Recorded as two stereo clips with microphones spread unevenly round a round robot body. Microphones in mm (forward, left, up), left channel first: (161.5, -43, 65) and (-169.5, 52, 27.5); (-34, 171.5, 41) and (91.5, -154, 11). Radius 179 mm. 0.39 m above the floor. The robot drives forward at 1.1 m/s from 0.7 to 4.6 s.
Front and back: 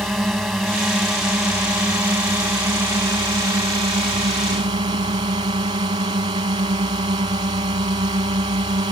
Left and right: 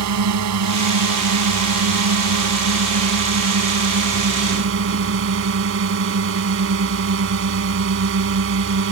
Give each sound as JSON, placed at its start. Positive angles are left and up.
{"t": 0.0, "sound": "a drone", "azimuth_deg": -110}